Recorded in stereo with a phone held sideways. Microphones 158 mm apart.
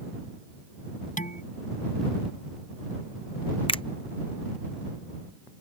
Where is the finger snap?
35° left (ahead or behind).